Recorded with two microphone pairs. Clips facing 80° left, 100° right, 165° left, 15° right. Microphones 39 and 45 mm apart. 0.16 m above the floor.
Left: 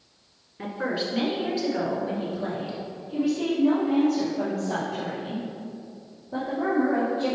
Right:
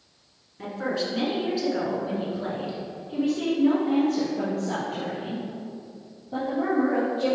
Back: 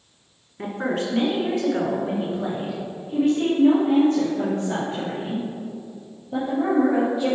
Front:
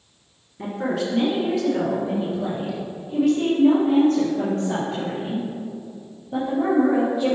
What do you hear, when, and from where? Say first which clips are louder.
0.6 s a woman speaking: even, even; 145° left, 1.8 m; by 7.3 s 105° right, 4 m